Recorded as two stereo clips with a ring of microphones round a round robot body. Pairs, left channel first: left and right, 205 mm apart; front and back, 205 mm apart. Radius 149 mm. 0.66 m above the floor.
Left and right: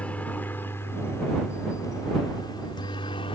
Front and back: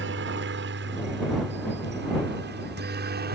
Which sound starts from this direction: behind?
A helicopter, at 0.0 s.